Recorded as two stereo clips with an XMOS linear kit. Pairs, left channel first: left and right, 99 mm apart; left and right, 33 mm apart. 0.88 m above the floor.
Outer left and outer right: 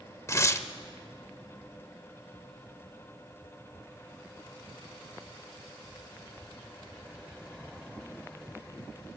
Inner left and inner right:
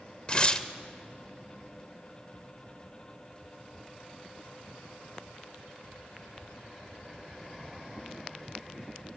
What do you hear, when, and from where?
0.3 s tearing paper: 30° left (ahead or behind), 0.8 m